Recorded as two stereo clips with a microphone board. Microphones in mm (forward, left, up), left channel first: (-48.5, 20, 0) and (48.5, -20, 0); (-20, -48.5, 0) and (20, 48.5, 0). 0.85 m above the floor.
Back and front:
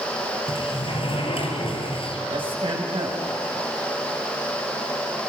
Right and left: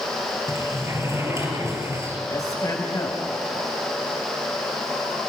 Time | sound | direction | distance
0.5 | a sliding door | 130° left | 3.5 m
2.3 | a man speaking | 55° right | 4.5 m